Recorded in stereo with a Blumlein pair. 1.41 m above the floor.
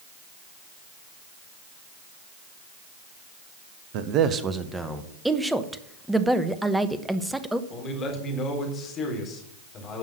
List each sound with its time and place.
3.9 s a man speaking: 45° right, 1.1 m; by 5.1 s straight ahead, 1.7 m
5.2 s a woman speaking: 5° right, 1.0 m
7.7 s a man speaking: 30° left, 3.5 m